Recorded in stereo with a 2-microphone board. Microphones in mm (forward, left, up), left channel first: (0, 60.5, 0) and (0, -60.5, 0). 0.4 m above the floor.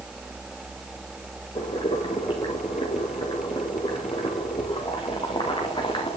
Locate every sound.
1.6 s boiling: 45° left (ahead or behind), 5.5 m